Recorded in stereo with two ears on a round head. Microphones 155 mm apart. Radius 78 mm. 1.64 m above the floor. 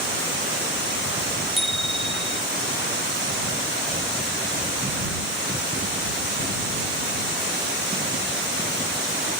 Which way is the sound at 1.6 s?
Centre (ahead or behind).